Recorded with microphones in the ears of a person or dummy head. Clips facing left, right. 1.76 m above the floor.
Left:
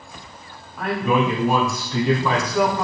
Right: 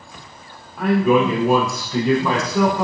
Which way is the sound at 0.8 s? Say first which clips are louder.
Right 5 dB; centre (ahead or behind).